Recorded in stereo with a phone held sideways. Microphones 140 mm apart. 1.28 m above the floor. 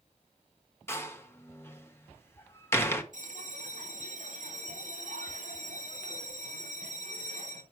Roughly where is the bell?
Right.